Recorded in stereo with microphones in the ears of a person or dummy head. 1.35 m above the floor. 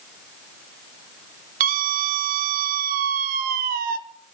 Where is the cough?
I don't hear a cough.